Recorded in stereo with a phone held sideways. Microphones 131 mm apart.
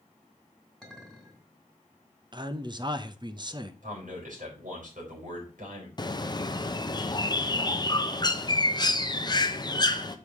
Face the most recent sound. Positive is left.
turn(degrees=30)  # may be behind; listen again after turning